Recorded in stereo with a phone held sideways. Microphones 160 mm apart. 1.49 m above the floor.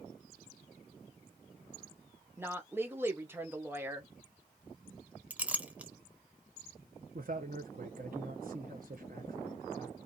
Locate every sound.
2.4 s a woman speaking: 15° right (ahead or behind), 1.1 m
5.3 s a clink: 10° right (ahead or behind), 0.7 m
7.2 s a man speaking: 60° right (ahead or behind), 0.6 m